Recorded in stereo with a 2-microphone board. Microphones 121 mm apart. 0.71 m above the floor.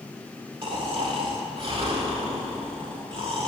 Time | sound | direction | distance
0.6 | snoring | 50° right (ahead or behind) | 1.8 m